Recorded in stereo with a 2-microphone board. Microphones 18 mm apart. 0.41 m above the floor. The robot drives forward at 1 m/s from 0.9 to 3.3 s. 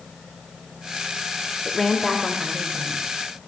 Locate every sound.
1.6 s a woman speaking: 20° left (ahead or behind), 0.9 m; by 3.1 s 10° left (ahead or behind), 2.0 m